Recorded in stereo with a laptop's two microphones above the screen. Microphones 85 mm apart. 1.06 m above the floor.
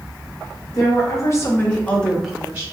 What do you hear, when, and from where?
0.7 s a woman speaking: 45° left (ahead or behind), 0.9 m; by 2.6 s 20° right (ahead or behind), 0.6 m